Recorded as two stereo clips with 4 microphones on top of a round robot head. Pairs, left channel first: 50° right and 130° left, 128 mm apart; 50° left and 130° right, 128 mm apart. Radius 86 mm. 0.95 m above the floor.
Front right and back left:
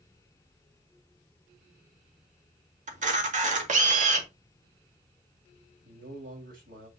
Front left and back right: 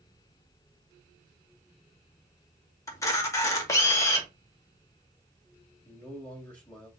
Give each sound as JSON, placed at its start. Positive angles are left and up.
{"t": 2.9, "sound": "a camera shutter", "azimuth_deg": 115, "distance_m": 2.0}
{"t": 5.8, "sound": "a man speaking", "azimuth_deg": 130, "distance_m": 4.5}